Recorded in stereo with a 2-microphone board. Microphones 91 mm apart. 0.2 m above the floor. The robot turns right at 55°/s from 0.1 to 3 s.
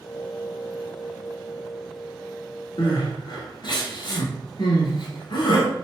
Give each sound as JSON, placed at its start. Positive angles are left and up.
{"t": 2.8, "sound": "crying", "side_deg": 70, "distance_m": 1.0}